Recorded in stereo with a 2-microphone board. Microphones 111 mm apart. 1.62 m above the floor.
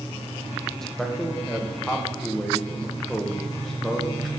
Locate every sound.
0.8 s a man speaking: 5° left (ahead or behind), 0.9 m